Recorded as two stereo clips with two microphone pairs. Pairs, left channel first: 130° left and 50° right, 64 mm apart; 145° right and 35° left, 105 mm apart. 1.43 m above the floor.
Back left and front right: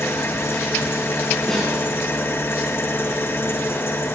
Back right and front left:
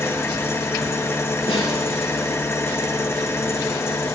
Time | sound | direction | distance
0.0 | an engine running | 160° left | 0.9 m
1.5 | a snare drum | 150° right | 5.5 m